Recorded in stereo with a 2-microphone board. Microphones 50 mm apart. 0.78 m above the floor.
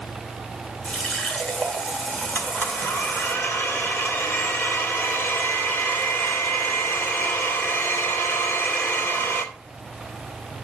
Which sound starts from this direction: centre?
A running tap, at 0.8 s.